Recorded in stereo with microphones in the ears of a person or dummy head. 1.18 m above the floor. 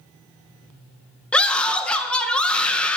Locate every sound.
1.3 s a scream: 5° left (ahead or behind), 1.3 m